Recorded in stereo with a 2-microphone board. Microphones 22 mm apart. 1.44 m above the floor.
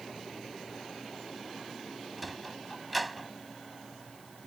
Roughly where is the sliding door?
Centre.